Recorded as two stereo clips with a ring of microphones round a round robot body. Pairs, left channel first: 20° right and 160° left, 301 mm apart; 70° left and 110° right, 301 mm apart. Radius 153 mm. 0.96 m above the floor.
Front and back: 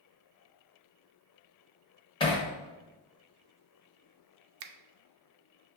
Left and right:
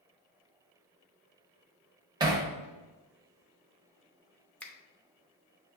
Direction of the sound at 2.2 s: 65° right.